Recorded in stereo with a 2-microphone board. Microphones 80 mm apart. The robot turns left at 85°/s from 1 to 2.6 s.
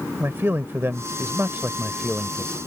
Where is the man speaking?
75° right; by 2.6 s 150° left.